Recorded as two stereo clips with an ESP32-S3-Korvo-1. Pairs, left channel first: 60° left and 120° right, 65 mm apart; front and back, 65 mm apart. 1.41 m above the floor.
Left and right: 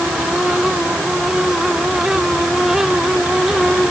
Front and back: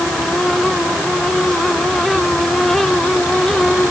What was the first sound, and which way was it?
Only background noise.